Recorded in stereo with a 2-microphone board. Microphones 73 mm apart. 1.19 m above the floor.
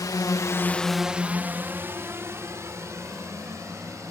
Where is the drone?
55° left (ahead or behind); by 4.1 s 40° right (ahead or behind).